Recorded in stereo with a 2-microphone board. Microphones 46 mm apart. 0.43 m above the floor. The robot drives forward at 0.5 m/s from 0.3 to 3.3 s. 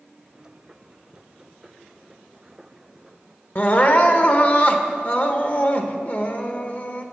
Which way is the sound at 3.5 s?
40° left (ahead or behind).